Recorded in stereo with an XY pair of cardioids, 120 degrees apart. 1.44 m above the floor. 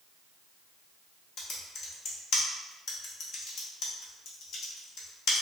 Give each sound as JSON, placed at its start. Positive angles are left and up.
{"t": 1.4, "sound": "typing on a keyboard", "azimuth_deg": 60, "distance_m": 0.7}